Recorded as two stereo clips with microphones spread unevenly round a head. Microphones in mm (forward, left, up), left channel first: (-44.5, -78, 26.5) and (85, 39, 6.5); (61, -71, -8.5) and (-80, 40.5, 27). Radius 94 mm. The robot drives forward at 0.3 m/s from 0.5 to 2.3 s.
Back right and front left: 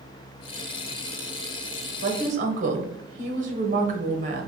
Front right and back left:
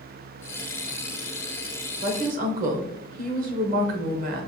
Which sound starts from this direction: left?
A woman speaking, at 2.0 s.